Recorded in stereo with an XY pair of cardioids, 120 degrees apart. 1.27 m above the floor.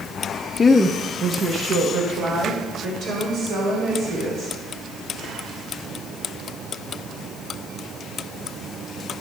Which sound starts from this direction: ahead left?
A woman speaking, at 0.6 s.